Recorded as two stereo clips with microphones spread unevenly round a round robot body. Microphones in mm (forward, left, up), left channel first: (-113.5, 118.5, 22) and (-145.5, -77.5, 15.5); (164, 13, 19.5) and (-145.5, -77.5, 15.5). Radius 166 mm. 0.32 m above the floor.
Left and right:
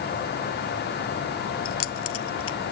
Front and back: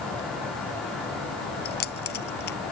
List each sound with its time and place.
1.6 s keys jangling: 80° left